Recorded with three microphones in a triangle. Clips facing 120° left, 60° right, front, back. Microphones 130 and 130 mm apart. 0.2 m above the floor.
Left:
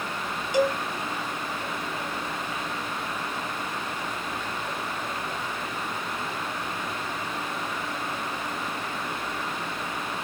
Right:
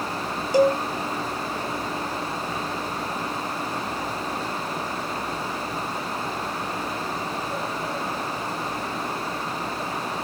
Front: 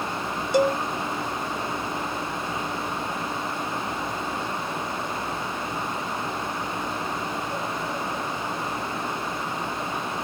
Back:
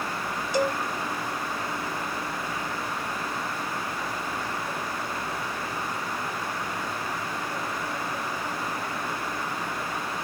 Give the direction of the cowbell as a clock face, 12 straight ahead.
12 o'clock.